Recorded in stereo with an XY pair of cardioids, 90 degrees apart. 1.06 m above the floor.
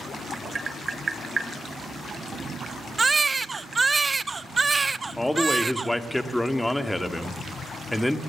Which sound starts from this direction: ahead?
A man speaking, at 5.2 s.